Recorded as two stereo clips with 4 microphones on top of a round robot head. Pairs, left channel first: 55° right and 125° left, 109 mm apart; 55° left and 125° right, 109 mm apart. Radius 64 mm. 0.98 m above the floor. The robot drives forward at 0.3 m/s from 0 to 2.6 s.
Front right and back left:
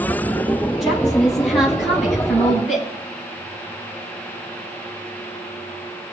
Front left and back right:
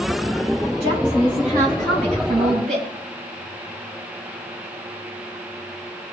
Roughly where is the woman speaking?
Behind right.